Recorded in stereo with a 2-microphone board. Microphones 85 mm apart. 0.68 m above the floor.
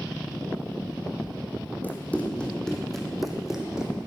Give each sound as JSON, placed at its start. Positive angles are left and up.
{"t": 1.8, "sound": "running footsteps", "side_deg": 20, "distance_m": 2.0}